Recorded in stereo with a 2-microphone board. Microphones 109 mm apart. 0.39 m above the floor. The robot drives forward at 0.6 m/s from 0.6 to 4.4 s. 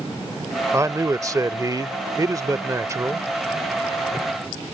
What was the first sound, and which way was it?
A man speaking, 25° right (ahead or behind).